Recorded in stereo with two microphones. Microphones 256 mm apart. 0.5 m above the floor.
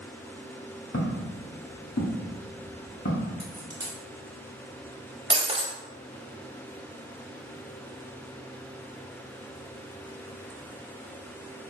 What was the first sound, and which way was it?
Footsteps, 60° left (ahead or behind).